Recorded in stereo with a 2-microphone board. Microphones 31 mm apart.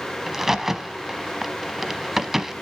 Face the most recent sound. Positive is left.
turn(degrees=-10)  # may be behind; listen again after turning